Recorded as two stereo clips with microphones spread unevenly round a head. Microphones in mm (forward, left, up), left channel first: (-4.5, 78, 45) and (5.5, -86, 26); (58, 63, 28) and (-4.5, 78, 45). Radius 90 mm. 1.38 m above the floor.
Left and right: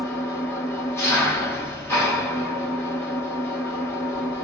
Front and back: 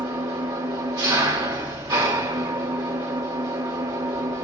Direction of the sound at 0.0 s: 170° left.